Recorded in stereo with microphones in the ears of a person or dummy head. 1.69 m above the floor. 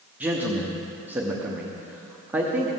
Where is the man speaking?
10° right (ahead or behind), 0.8 m.